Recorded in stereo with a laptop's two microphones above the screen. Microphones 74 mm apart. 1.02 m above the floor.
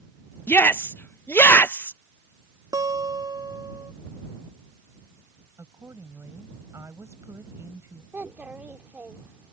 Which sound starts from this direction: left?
A shout, at 0.5 s.